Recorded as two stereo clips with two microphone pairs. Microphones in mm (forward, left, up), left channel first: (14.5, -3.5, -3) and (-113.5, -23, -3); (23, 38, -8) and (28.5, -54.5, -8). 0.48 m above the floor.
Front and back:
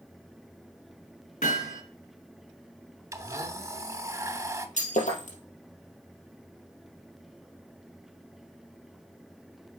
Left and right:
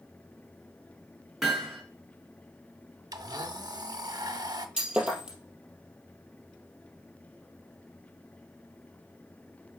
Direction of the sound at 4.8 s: 5° right.